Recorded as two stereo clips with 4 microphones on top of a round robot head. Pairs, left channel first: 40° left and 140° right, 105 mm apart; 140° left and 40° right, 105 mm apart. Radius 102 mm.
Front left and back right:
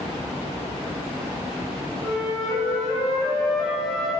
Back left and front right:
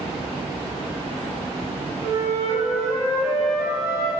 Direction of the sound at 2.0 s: 50° right.